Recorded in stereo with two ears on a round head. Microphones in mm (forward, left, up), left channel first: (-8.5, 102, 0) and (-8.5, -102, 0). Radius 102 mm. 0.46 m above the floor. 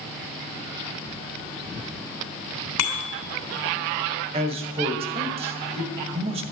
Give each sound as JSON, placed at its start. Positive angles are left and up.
{"t": 2.8, "sound": "a bicycle bell", "side_deg": 70, "distance_m": 2.5}
{"t": 4.3, "sound": "a man speaking", "side_deg": -25, "distance_m": 1.8}